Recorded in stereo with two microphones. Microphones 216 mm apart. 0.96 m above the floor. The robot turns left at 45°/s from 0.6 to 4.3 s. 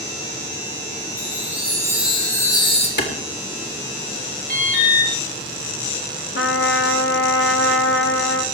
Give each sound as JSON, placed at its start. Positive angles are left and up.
{"t": 1.2, "sound": "a chime", "azimuth_deg": -135, "distance_m": 3.0}
{"t": 3.0, "sound": "a clap", "side_deg": 55, "distance_m": 3.0}
{"t": 4.5, "sound": "an alarm", "side_deg": 55, "distance_m": 6.5}
{"t": 6.3, "sound": "a trumpet", "side_deg": 75, "distance_m": 1.3}